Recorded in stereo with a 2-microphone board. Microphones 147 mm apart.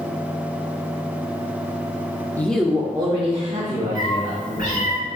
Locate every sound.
2.4 s a woman speaking: 15° left (ahead or behind), 0.7 m; by 5.0 s 50° right (ahead or behind), 2.5 m
4.0 s a cat meowing: 80° left, 1.6 m